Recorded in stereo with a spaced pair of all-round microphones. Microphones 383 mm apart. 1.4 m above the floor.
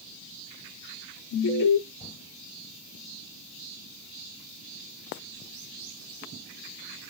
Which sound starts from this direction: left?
An alarm, at 1.3 s.